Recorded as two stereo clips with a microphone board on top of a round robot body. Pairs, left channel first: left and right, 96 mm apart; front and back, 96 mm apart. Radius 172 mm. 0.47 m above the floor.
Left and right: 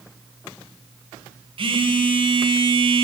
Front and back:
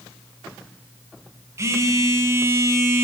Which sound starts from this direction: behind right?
A phone buzzing, at 1.6 s.